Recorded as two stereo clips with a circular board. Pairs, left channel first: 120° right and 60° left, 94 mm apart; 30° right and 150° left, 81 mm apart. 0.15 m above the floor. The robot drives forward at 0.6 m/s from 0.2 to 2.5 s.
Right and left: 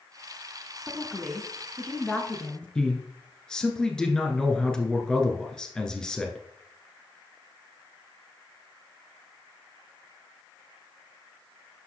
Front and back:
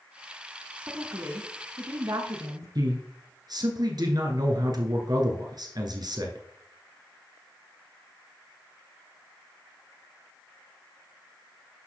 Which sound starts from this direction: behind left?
A woman speaking, at 0.9 s.